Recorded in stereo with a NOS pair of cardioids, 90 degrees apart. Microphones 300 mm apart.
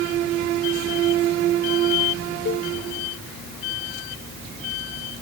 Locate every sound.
2.5 s a cowbell: 45° left